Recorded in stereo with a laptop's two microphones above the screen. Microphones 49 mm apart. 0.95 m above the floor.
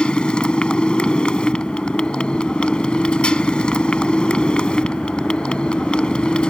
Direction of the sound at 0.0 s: 20° left (ahead or behind).